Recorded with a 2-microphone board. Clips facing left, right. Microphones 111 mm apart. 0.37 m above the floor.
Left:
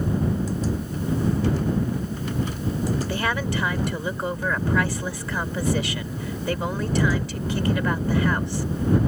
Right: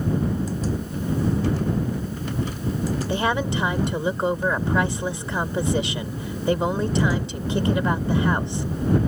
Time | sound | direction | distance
3.1 | a woman speaking | 25° right (ahead or behind) | ?